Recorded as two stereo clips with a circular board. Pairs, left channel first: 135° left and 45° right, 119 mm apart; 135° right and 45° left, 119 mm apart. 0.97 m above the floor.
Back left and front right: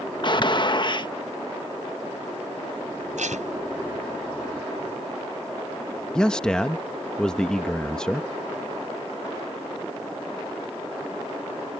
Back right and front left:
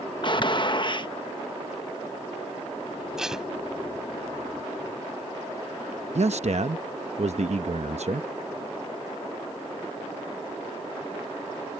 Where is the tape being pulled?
40° right.